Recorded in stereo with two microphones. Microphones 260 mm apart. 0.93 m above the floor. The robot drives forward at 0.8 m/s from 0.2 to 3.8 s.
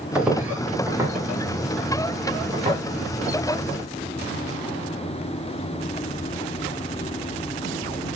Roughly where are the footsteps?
Centre.